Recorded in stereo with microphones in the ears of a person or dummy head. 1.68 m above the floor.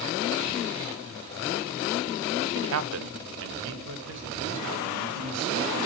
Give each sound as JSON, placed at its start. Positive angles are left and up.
{"t": 2.5, "sound": "a man speaking", "side_deg": -65, "distance_m": 0.6}